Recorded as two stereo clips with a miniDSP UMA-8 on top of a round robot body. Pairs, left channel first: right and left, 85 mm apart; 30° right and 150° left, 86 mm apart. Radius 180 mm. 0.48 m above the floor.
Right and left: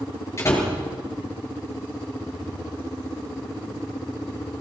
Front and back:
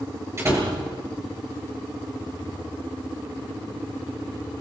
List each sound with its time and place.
0.4 s a door slam: 150° right, 8 m